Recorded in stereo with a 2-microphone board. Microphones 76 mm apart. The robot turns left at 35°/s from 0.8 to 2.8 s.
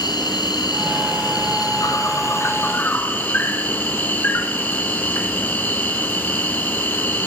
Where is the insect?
100° left, 2.5 m; by 7.3 s 30° left, 2.5 m.